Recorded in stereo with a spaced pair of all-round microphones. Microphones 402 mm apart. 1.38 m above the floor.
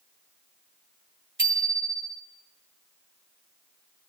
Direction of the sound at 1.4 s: 30° right (ahead or behind).